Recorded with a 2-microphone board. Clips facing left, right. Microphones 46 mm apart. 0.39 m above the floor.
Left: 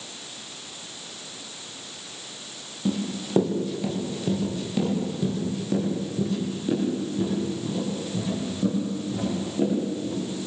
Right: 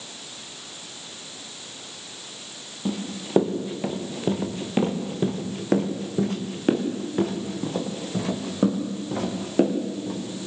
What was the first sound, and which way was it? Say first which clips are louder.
Running footsteps: left 2 dB; 10° right (ahead or behind).